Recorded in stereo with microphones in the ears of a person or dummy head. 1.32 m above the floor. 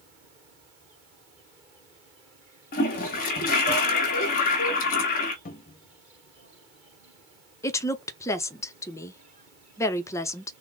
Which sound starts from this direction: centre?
A woman speaking, at 7.6 s.